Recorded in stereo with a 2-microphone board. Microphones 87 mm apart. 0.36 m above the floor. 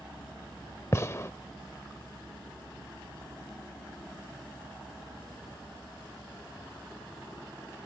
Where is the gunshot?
30° left (ahead or behind).